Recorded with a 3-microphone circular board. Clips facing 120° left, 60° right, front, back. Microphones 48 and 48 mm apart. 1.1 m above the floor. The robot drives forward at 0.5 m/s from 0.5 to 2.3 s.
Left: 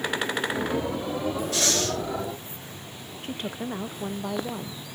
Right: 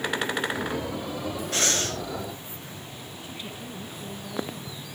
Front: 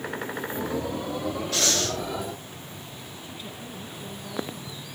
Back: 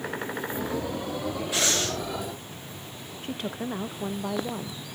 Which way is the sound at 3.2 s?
155° left.